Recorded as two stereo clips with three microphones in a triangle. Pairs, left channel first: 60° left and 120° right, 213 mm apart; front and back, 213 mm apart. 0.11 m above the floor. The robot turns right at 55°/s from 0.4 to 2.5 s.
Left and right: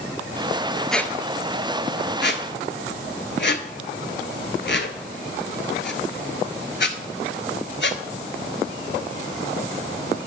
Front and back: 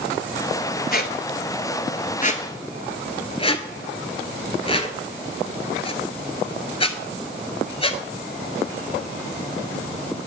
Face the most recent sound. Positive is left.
turn(degrees=60)